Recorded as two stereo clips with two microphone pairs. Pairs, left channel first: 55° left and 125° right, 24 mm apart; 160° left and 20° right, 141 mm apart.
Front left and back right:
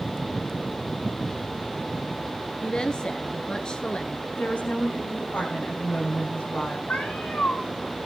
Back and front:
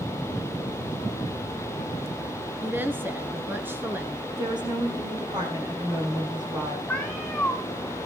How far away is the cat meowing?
About 4 m.